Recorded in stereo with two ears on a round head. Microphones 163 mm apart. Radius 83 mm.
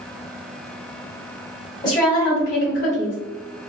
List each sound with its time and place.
1.8 s a woman speaking: 20° left (ahead or behind), 1.4 m; by 3.2 s 45° left (ahead or behind), 1.3 m